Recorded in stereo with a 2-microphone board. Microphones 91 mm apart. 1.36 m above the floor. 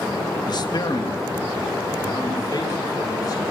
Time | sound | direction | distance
0.5 | a man speaking | 50° left (ahead or behind) | 1.3 m